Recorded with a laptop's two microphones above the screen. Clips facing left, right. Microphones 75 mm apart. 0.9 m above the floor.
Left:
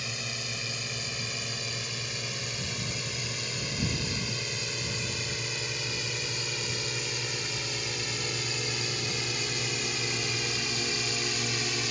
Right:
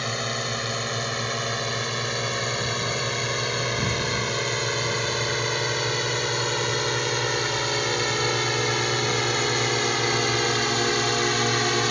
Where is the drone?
60° right (ahead or behind); by 11.9 s 65° right (ahead or behind).